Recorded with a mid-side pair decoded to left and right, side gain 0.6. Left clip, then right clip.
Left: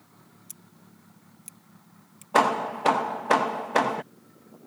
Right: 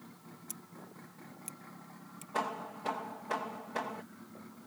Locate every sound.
0.5 s scissors: 5° left
2.3 s hammering: 65° left